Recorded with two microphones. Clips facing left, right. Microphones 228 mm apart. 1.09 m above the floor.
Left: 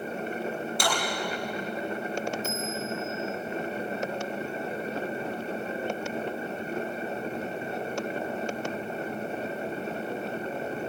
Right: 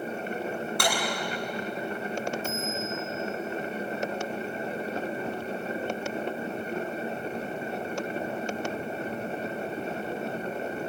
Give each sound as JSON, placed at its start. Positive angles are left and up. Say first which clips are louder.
{"t": 0.8, "sound": "a clap", "louder": "right 1 dB", "side_deg": -60, "distance_m": 8.5}
{"t": 2.4, "sound": "a bell", "louder": "even", "side_deg": -50, "distance_m": 7.0}